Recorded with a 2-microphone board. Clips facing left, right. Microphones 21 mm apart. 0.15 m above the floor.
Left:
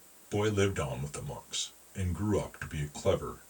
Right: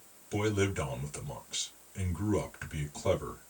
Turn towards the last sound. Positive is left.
turn(degrees=10)  # may be behind; listen again after turning